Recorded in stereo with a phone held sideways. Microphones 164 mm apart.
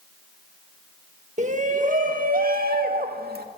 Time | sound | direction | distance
1.4 | a shout | 45° right (ahead or behind) | 1.6 m